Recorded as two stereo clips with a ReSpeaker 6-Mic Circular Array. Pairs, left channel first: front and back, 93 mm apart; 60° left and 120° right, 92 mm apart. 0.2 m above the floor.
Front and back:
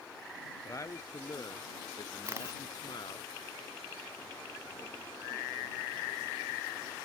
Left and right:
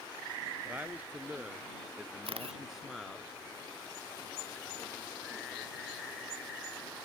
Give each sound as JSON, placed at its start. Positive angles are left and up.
{"t": 0.7, "sound": "a man speaking", "azimuth_deg": -50}
{"t": 2.2, "sound": "a camera shutter", "azimuth_deg": -120}